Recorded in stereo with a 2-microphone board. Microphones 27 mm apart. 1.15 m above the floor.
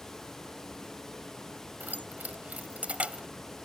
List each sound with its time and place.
1.8 s keys jangling: 75° right (ahead or behind); by 3.3 s 40° right (ahead or behind)